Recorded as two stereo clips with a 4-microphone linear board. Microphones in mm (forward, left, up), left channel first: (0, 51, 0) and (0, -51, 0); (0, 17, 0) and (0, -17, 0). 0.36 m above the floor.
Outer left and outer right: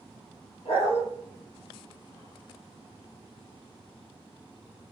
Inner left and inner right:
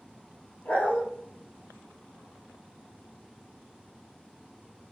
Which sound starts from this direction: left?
A dog barking, at 0.7 s.